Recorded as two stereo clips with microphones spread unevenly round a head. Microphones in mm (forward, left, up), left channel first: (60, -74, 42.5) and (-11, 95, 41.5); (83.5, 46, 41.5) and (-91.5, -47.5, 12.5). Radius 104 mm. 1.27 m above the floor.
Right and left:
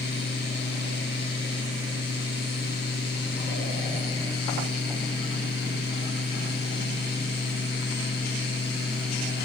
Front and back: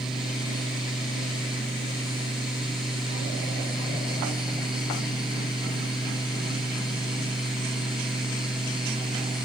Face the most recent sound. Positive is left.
No sound to turn to.